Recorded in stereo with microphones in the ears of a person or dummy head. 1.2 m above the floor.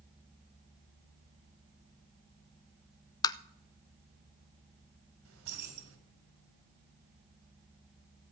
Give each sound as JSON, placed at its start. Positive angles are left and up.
{"t": 3.2, "sound": "tapping", "side_deg": 20, "distance_m": 0.5}
{"t": 5.2, "sound": "keys jangling", "side_deg": -85, "distance_m": 3.0}